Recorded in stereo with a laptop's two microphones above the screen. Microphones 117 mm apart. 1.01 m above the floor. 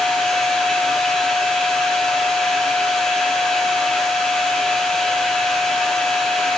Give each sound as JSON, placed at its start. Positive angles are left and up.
{"t": 0.0, "sound": "a machine running", "side_deg": 5, "distance_m": 4.0}